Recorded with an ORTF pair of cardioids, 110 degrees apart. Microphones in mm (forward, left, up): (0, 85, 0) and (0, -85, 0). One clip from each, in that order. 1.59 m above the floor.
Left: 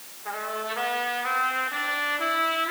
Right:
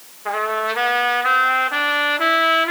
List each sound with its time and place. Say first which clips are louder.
0.2 s a trumpet: right 10 dB; 55° right, 3.5 m